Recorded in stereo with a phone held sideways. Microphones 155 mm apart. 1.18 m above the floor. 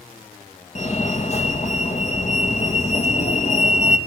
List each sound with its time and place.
0.8 s a fire alarm: 45° left (ahead or behind), 2.5 m